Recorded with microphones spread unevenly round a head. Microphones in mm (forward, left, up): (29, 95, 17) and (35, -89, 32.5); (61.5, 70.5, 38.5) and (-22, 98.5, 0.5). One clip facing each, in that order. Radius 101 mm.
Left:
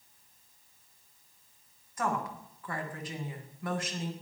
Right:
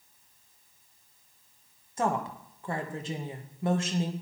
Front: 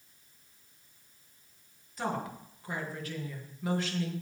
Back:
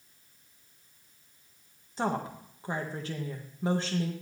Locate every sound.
2.0 s a woman speaking: 155° right, 1.3 m